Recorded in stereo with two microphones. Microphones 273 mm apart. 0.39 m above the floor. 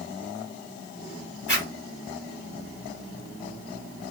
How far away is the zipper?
About 1.8 m.